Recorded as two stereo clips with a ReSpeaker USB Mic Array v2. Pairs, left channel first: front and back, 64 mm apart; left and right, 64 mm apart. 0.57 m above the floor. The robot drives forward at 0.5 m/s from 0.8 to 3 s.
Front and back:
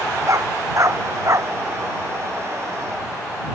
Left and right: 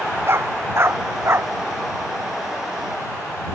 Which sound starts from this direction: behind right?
A dog barking, at 0.3 s.